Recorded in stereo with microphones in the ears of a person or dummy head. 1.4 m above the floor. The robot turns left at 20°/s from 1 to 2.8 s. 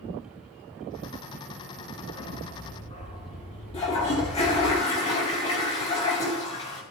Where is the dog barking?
10° left (ahead or behind), 5 m; by 4.7 s 25° left (ahead or behind), 5 m.